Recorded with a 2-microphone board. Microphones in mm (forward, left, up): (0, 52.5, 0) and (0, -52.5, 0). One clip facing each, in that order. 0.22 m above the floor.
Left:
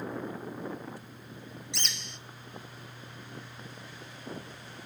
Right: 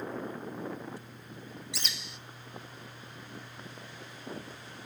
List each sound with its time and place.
1.7 s a bird: 5° right (ahead or behind), 0.5 m